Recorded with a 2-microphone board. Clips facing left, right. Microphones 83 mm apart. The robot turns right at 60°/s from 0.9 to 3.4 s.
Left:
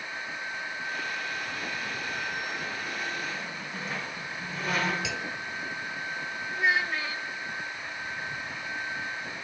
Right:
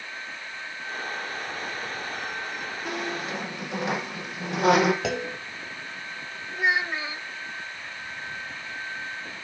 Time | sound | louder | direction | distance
2.9 | a squeak | right 3 dB | 105° right | 5.5 m
5.0 | a clunk | right 5 dB | 50° right (ahead or behind) | 1.6 m
6.5 | a child speaking | right 2 dB | 20° right (ahead or behind) | 0.5 m